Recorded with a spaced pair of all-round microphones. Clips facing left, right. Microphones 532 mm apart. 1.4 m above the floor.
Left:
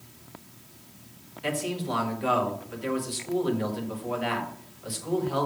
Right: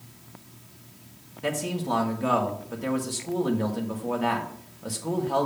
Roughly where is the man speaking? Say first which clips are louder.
Right 1 dB; right.